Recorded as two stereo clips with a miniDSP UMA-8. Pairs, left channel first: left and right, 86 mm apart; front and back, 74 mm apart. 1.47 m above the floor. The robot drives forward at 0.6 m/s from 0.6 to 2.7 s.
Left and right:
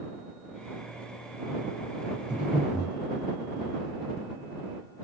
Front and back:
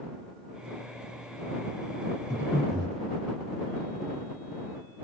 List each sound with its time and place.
2.3 s breathing: 170° right, 3 m